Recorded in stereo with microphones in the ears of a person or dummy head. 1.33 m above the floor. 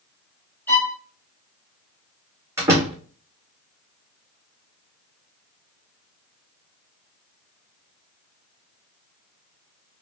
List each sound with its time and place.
0.7 s a violin: 10° left (ahead or behind), 2.5 m
2.6 s a door slam: 20° right (ahead or behind), 2 m